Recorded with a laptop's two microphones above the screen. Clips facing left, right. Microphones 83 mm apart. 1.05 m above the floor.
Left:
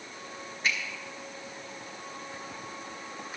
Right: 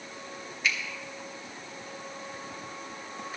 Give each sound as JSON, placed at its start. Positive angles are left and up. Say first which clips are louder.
{"t": 0.6, "sound": "a finger snap", "louder": "even", "side_deg": 40, "distance_m": 1.7}